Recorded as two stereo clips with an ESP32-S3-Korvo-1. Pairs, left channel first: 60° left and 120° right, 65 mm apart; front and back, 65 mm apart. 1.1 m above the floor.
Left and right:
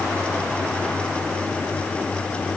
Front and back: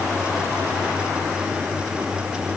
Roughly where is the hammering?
I don't hear hammering.